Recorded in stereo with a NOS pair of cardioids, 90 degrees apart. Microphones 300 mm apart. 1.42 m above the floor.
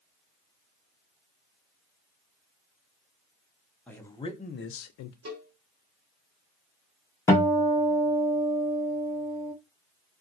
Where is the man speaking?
5° left, 0.9 m; by 5.2 s 75° left, 0.5 m.